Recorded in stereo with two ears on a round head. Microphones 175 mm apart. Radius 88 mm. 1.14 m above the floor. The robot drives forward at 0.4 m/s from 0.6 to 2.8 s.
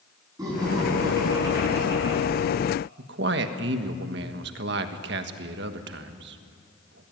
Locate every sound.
0.4 s laughter: 15° right (ahead or behind), 10 m
3.0 s a man speaking: 65° right (ahead or behind), 1.5 m